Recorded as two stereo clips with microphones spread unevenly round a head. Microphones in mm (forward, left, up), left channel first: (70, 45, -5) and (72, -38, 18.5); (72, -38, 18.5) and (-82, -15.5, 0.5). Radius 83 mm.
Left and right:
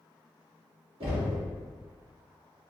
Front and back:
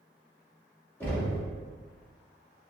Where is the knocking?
85° right, 1.9 m.